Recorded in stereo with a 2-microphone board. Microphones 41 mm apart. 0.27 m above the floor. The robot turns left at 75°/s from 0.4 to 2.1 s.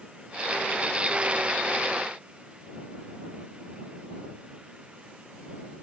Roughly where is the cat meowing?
I don't hear a cat meowing.